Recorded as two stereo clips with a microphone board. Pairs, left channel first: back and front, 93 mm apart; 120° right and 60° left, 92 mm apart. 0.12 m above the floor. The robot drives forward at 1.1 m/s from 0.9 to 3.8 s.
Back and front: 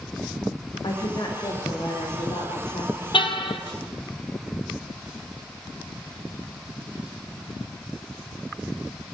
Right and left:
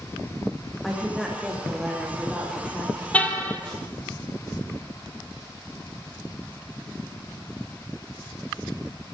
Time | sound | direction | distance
0.8 | a woman speaking | 150° left | 6.5 m
3.1 | a car horn | 165° left | 2 m